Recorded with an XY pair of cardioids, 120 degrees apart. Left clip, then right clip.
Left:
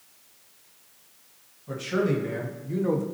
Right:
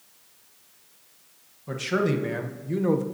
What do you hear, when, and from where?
1.7 s a man speaking: 45° right, 1.4 m; by 3.0 s 20° right, 0.7 m